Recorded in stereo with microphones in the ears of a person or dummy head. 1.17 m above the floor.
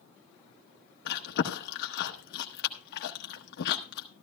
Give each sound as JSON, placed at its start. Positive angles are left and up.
{"t": 1.1, "sound": "chewing", "side_deg": 60, "distance_m": 1.0}